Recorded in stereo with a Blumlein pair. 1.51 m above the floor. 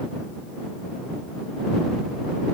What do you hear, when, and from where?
Only background noise.